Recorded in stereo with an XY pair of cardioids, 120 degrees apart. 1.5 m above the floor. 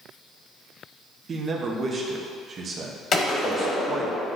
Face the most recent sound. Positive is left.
turn(degrees=45)